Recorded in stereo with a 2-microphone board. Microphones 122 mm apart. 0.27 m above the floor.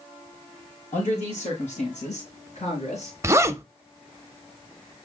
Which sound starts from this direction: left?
A man speaking, at 0.9 s.